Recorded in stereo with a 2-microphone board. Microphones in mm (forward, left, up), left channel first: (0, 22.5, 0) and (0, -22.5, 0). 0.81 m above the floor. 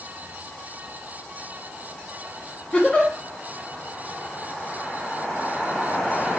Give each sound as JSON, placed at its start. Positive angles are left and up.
{"t": 2.7, "sound": "a giggle", "side_deg": 20, "distance_m": 1.3}